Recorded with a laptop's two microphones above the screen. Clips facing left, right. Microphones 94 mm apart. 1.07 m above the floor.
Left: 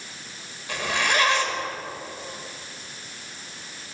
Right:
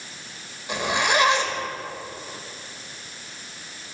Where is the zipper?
20° right (ahead or behind), 1.7 m.